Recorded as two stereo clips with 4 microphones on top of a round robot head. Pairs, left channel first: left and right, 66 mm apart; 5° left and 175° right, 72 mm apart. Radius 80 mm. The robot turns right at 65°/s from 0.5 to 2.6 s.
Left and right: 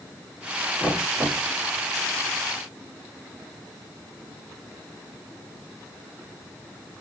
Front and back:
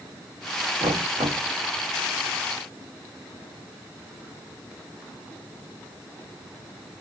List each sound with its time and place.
0.8 s knocking: 175° left, 1.8 m; by 1.5 s 140° right, 1.8 m